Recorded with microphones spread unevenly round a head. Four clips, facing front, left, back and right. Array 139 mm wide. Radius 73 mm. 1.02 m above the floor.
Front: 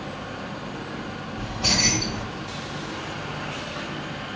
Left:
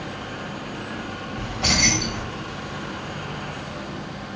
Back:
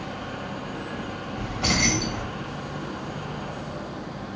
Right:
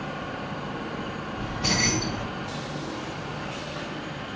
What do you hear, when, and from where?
1.4 s keys jangling: 115° left, 2 m